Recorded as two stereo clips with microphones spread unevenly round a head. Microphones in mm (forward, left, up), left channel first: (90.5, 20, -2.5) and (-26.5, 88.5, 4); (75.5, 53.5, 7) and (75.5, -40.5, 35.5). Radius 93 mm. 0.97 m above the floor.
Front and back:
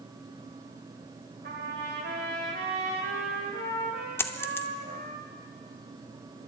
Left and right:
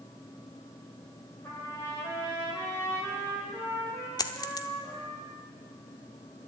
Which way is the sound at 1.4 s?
175° left.